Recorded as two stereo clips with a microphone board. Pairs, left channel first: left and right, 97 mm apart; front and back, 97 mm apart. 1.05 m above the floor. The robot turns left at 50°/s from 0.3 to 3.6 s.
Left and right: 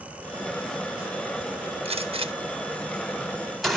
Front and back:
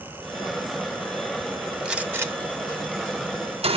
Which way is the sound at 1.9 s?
95° right.